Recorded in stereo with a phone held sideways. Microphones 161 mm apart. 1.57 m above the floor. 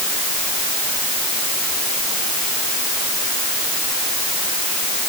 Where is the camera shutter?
No camera shutter in this recording.